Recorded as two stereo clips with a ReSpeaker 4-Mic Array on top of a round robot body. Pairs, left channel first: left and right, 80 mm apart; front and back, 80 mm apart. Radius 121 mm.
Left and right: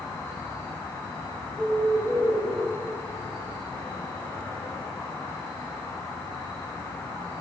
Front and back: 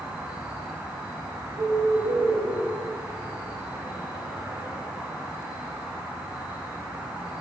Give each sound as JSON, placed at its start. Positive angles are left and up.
{"t": 0.0, "sound": "an insect", "azimuth_deg": 110, "distance_m": 5.0}
{"t": 1.6, "sound": "a bird", "azimuth_deg": 165, "distance_m": 5.0}